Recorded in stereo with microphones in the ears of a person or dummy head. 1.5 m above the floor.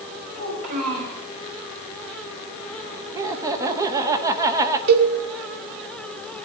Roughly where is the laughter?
Centre.